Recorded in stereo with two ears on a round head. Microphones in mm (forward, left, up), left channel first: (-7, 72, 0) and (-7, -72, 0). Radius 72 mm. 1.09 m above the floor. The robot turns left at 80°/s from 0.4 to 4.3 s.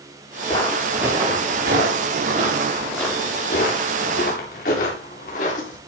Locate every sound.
0.5 s footsteps: 35° left (ahead or behind), 8.5 m; by 5.8 s 50° left (ahead or behind), 9.5 m